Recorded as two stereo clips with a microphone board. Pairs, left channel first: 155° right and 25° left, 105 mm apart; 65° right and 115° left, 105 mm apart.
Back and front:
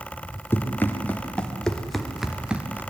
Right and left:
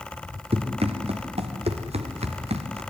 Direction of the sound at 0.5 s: 135° left.